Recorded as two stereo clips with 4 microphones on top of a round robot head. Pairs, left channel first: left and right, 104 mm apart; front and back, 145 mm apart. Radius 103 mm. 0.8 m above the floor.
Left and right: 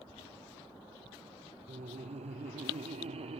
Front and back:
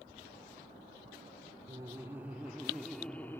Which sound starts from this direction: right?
Laughter, at 1.7 s.